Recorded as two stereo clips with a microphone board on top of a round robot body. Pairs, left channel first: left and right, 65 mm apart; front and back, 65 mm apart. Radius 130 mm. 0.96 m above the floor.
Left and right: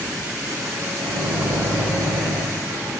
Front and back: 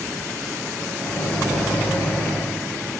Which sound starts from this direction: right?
A microwave, at 1.0 s.